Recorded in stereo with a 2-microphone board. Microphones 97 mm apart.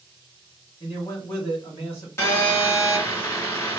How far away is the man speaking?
About 1.5 m.